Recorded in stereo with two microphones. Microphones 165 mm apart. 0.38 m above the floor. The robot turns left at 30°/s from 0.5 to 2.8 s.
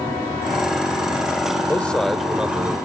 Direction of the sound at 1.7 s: 15° left.